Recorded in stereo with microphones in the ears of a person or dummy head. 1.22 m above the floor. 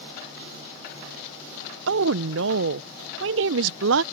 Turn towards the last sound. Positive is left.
turn(degrees=-60)  # may be behind; listen again after turning